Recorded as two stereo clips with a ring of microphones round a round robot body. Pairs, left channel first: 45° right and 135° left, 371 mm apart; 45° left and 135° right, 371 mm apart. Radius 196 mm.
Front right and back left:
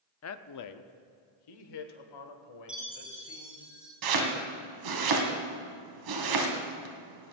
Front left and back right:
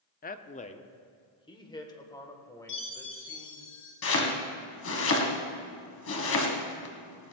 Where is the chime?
45° left, 3.5 m.